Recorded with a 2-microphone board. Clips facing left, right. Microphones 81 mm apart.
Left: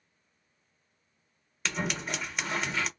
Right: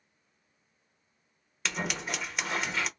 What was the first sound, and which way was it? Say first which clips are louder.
Scissors: left 1 dB; centre (ahead or behind).